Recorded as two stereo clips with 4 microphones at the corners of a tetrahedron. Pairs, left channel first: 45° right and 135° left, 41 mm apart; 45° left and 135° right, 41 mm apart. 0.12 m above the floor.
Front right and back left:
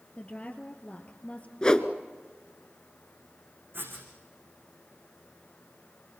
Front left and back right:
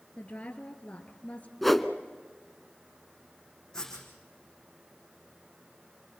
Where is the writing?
120° left, 8 m.